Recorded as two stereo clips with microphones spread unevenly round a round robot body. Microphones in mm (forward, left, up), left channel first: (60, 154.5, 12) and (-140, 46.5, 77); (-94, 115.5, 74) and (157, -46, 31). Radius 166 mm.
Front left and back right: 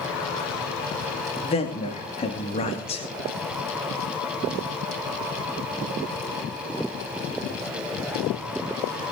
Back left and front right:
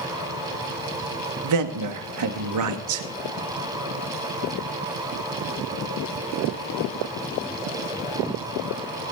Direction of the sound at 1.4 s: 30° right.